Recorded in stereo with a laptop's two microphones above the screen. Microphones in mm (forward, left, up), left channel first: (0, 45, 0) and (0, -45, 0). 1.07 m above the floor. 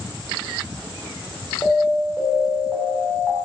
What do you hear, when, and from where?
1.6 s an alarm: 20° left (ahead or behind), 0.7 m